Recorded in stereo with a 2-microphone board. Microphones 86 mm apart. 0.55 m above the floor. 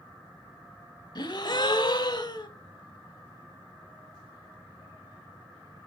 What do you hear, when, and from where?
1.1 s a gasp: 55° left (ahead or behind), 1.0 m